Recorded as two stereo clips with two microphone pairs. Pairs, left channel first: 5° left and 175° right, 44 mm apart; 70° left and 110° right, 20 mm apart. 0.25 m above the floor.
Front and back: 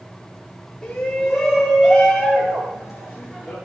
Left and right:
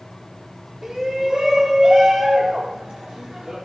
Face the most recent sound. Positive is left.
turn(degrees=-95)